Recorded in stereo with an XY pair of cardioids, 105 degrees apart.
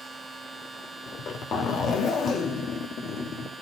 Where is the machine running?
15° right, 2.5 m.